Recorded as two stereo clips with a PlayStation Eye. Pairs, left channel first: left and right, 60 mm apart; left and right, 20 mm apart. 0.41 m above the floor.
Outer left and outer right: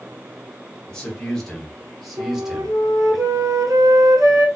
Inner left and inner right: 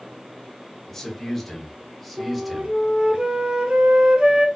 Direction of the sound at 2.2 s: 70° right (ahead or behind).